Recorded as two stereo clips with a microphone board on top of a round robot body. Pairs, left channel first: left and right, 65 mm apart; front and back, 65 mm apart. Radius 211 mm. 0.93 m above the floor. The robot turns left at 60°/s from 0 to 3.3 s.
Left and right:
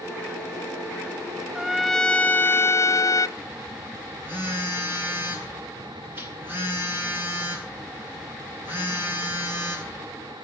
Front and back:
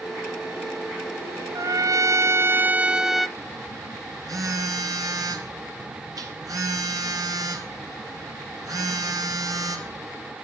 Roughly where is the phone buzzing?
Behind right.